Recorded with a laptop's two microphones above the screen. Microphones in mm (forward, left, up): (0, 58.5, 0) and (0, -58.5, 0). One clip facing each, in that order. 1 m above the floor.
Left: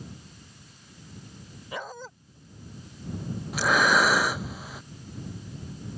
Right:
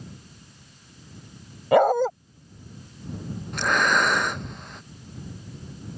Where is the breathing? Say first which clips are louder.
Even; 5° left (ahead or behind).